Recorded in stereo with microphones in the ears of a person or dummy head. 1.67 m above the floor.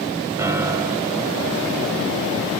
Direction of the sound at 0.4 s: 20° right (ahead or behind).